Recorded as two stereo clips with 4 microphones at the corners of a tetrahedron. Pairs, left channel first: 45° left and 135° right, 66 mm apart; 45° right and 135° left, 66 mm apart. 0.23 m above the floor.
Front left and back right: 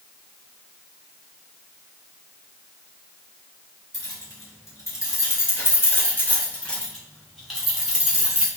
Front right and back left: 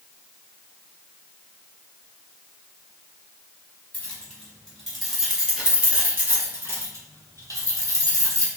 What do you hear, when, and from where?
3.9 s keys jangling: 25° left, 1.5 m; by 8.5 s 150° left, 1.6 m